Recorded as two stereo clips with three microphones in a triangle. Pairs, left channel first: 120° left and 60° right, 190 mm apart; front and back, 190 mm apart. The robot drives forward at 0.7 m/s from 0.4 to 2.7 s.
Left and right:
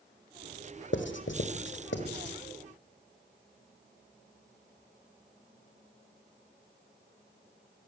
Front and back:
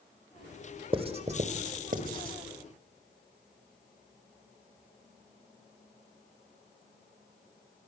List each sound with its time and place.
0.9 s writing: 120° left, 1.8 m; by 2.4 s 140° left, 2.5 m